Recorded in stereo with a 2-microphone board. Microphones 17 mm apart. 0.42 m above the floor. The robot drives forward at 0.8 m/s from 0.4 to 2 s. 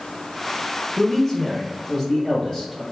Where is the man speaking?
15° left (ahead or behind), 0.8 m; by 2.8 s 10° left (ahead or behind), 1.0 m.